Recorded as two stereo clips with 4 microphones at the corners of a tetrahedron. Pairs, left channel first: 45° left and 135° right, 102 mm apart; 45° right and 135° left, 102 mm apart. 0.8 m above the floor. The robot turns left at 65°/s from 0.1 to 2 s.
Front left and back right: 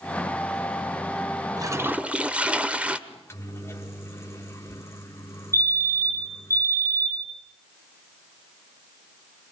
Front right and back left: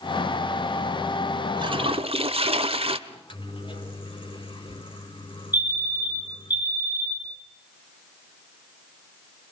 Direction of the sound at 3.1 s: 20° right.